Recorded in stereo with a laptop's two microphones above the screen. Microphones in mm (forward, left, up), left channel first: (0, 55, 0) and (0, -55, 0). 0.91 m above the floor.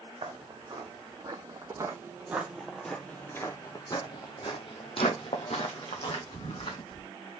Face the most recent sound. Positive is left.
turn(degrees=70)  # may be behind; listen again after turning